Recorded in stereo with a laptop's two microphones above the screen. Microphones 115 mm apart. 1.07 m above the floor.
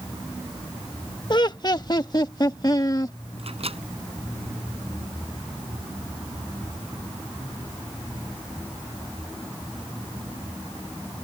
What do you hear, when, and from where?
1.3 s laughter: 40° left (ahead or behind); by 3.2 s 35° left (ahead or behind)
3.4 s a microwave: 60° right (ahead or behind)